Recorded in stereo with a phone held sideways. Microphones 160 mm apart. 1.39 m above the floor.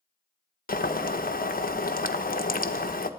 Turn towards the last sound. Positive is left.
turn(degrees=60)  # may be behind; listen again after turning